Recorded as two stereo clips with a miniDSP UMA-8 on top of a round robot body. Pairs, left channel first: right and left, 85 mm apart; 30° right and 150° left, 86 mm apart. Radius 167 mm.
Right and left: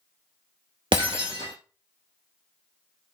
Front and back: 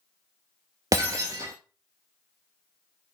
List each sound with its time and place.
0.9 s breaking glass: 110° left, 0.6 m